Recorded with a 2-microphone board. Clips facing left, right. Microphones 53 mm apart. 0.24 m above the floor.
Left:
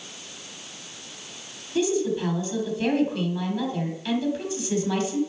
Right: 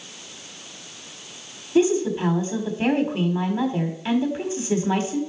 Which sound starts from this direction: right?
A woman speaking, at 1.8 s.